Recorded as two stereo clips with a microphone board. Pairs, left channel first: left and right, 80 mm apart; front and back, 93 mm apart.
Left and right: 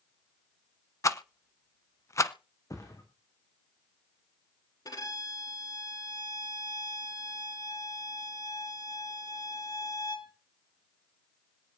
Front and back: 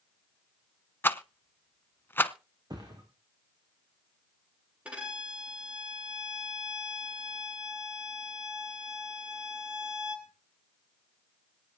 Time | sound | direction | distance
1.0 | a rattle | 60° left | 0.7 m
2.7 | a thud | 135° left | 4.5 m
4.8 | a violin | 105° left | 2.5 m